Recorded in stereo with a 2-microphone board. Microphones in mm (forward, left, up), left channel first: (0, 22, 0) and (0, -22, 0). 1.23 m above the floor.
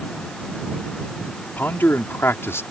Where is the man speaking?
50° left (ahead or behind); by 2.6 s 85° left.